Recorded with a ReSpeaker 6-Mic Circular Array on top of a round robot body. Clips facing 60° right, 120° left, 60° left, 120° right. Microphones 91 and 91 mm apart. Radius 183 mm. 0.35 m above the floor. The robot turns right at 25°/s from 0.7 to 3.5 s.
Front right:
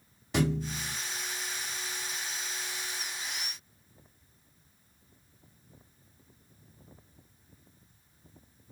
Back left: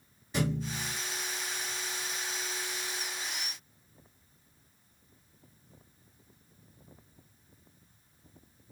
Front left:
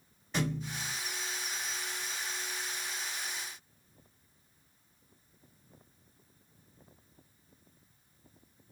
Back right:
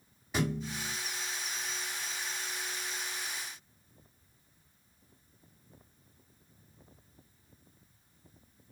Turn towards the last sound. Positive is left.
turn(degrees=35)